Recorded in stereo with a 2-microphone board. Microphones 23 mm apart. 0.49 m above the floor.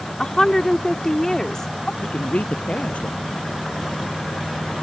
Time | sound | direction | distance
0.2 | a woman speaking | 25° left (ahead or behind) | ?
2.0 | a man speaking | 75° left (ahead or behind) | ?